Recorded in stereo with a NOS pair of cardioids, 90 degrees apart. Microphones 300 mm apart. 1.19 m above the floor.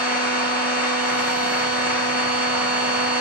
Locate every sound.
0.0 s a machine running: 5° right, 0.8 m